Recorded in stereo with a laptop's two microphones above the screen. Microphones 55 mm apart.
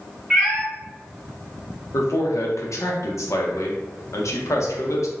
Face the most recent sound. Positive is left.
turn(degrees=70)  # may be behind; listen again after turning